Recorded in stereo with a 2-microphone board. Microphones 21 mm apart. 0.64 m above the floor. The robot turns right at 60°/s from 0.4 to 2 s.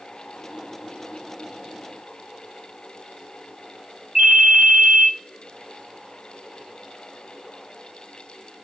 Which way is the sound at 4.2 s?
40° right (ahead or behind).